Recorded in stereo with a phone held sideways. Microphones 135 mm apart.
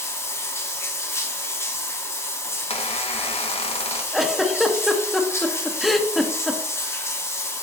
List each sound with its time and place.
0.0 s running water: 20° left (ahead or behind), 1.2 m
2.7 s a squeak: 45° left (ahead or behind), 0.7 m
4.1 s a giggle: centre (ahead or behind), 0.7 m